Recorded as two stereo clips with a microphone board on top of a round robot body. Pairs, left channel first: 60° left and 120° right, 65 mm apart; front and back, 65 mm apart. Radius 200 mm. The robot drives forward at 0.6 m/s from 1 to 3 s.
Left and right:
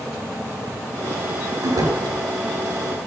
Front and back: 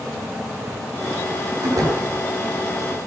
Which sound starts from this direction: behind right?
A door slam, at 1.6 s.